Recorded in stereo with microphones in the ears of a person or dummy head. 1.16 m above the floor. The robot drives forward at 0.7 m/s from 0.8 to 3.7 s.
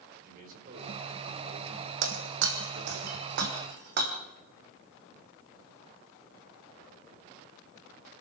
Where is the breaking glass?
70° right (ahead or behind), 3 m; by 4.1 s 60° right (ahead or behind), 3.5 m.